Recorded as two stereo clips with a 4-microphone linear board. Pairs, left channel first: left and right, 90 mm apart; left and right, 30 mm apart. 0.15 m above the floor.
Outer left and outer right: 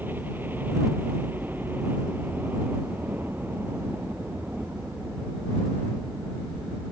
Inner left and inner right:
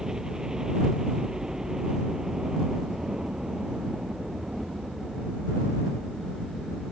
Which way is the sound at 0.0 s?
20° right (ahead or behind).